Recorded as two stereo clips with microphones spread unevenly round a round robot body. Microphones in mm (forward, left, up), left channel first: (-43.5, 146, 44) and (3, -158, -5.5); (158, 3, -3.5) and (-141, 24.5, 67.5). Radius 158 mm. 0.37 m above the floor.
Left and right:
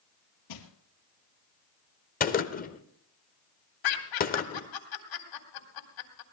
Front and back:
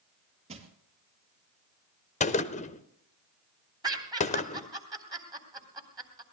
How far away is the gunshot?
About 0.8 m.